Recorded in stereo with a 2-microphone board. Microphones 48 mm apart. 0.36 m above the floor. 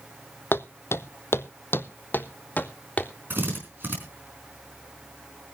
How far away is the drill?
About 4.5 m.